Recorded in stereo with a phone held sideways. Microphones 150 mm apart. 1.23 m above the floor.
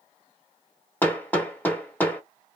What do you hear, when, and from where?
1.0 s hammering: 10° left (ahead or behind), 0.9 m